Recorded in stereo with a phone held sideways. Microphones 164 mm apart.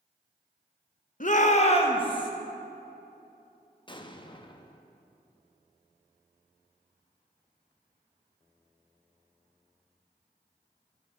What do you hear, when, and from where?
1.2 s a shout: 55° left (ahead or behind), 0.9 m; by 2.3 s 25° left (ahead or behind), 1.4 m
3.9 s an explosion: 30° left (ahead or behind), 0.5 m